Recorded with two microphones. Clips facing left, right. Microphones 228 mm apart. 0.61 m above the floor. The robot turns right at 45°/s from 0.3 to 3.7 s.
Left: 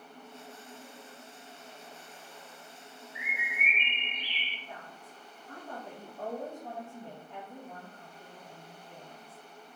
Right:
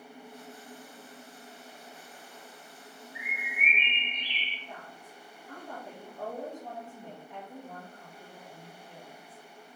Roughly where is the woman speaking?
Centre.